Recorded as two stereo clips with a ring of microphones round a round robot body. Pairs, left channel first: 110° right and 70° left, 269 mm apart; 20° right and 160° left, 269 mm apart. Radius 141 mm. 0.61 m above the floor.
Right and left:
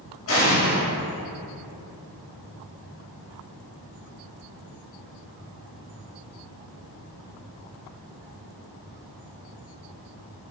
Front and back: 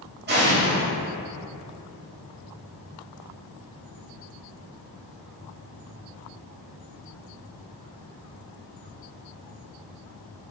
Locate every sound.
0.3 s an explosion: 150° right, 3.5 m